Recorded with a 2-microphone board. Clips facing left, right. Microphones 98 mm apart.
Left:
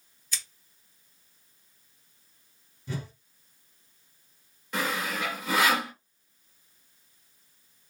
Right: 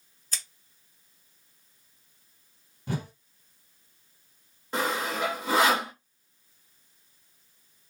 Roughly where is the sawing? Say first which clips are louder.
Right 2 dB; right.